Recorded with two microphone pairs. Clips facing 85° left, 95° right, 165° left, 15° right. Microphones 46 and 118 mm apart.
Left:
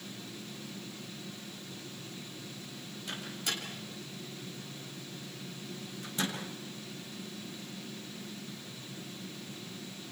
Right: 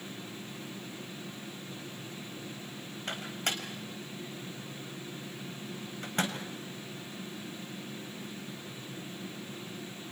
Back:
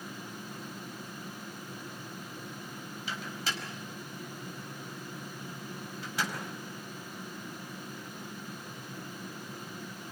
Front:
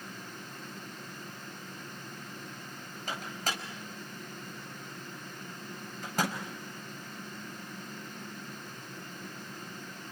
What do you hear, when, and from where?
3.1 s a microwave: 55° right, 4.5 m